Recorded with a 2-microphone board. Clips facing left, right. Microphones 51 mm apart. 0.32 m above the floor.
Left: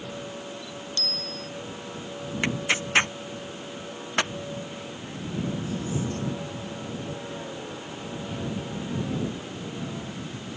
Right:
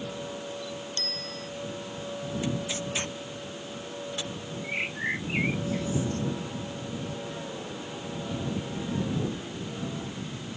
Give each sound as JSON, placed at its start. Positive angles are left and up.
{"t": 1.0, "sound": "a bicycle bell", "side_deg": -35}
{"t": 2.4, "sound": "tearing paper", "side_deg": 65}
{"t": 4.6, "sound": "a bird", "side_deg": -80}